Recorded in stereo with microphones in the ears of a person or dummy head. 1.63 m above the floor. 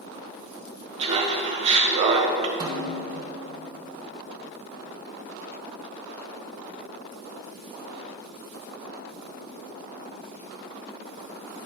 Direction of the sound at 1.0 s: 35° right (ahead or behind).